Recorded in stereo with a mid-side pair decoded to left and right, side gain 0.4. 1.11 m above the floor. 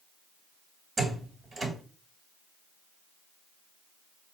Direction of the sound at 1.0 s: 40° right.